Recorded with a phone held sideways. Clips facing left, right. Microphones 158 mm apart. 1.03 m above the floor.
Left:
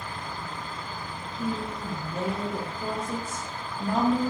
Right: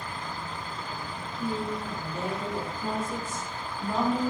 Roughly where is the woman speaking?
Left.